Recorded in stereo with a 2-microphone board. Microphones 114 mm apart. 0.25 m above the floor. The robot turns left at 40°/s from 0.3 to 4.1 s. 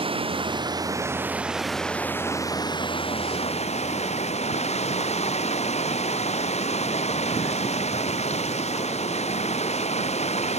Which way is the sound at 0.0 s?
125° right.